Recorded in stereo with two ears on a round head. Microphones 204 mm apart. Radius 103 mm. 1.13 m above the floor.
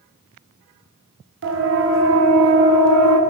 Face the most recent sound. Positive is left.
turn(degrees=-75)  # may be behind; listen again after turning